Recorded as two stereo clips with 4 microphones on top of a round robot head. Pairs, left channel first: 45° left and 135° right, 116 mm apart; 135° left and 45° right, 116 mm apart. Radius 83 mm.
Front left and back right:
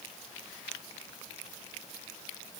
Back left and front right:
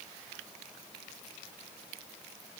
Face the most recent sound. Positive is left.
No sound to turn to.